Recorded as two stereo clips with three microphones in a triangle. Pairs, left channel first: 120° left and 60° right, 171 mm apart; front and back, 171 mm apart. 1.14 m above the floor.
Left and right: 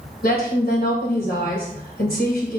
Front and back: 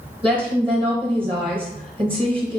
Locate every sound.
0.2 s a woman speaking: 125° left, 1.2 m